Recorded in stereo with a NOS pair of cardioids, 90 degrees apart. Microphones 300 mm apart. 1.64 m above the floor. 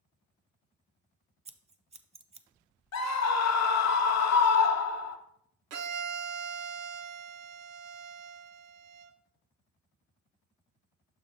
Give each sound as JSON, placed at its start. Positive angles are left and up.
{"t": 1.4, "sound": "scissors", "azimuth_deg": -20, "distance_m": 0.5}
{"t": 2.9, "sound": "a scream", "azimuth_deg": 65, "distance_m": 1.1}
{"t": 5.7, "sound": "a violin", "azimuth_deg": -60, "distance_m": 0.8}